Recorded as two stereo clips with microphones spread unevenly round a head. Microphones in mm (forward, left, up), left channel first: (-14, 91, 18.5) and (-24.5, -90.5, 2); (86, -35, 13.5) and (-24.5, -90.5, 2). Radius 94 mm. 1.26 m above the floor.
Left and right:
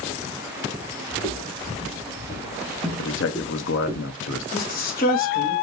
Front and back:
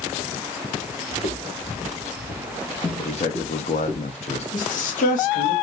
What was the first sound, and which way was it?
Footsteps, 45° left.